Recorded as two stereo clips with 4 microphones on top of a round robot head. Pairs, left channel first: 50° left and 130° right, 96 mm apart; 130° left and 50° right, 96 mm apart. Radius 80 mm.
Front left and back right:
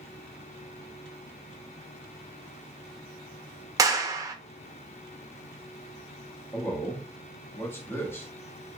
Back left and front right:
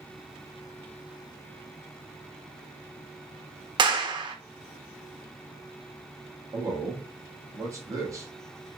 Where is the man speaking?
5° right, 1.0 m.